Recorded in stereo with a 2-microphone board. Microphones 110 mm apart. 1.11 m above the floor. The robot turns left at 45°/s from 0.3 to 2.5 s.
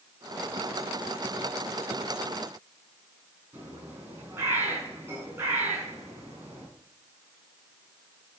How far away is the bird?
About 5.5 m.